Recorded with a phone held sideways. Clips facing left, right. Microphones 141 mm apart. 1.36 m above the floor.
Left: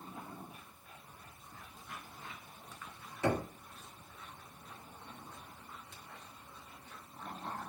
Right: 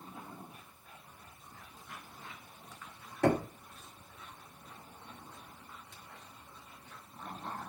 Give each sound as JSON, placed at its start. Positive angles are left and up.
{"t": 3.2, "sound": "knocking", "side_deg": -65, "distance_m": 1.6}